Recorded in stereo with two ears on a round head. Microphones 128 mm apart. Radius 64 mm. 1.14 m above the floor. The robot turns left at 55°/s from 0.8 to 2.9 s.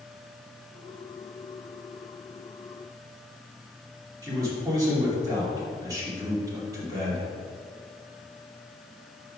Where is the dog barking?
No dog barking in this recording.